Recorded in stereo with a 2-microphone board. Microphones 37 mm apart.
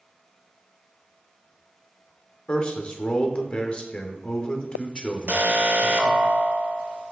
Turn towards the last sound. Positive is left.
turn(degrees=-50)  # may be behind; listen again after turning